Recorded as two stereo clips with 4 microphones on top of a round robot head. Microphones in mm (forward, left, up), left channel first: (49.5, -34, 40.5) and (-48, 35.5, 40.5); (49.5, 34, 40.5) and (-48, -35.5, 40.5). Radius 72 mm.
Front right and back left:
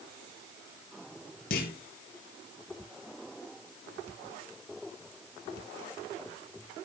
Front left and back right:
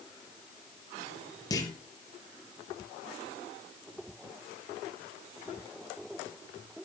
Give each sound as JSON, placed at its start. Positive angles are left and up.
{"t": 1.5, "sound": "a clunk", "azimuth_deg": -30, "distance_m": 2.5}